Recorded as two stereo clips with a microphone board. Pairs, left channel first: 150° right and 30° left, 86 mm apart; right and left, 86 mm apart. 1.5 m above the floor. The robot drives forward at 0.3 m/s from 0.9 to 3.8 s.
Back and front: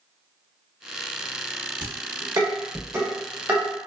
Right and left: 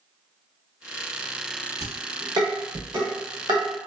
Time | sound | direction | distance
1.8 | dishes clattering | 60° left | 1.0 m